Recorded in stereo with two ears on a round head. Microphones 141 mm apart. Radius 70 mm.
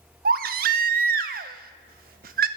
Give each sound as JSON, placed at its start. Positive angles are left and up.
{"t": 0.2, "sound": "a baby crying", "side_deg": -60, "distance_m": 0.6}